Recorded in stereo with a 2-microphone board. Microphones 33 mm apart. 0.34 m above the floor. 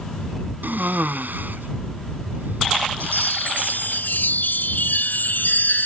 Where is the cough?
70° right (ahead or behind).